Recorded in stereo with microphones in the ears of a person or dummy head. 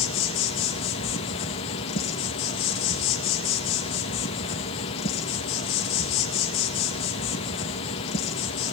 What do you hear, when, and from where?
0.0 s an insect: 25° left (ahead or behind), 1.0 m